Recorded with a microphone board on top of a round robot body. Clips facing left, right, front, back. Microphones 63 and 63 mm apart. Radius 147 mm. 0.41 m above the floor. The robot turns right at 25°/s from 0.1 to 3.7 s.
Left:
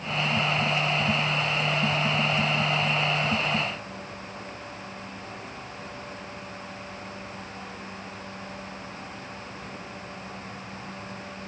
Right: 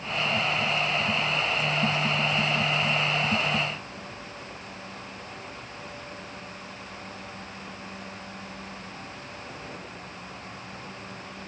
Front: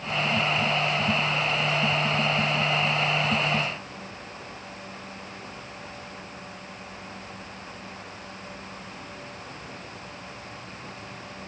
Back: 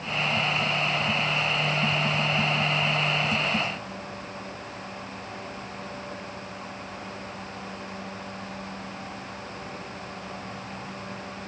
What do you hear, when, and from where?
Only background noise.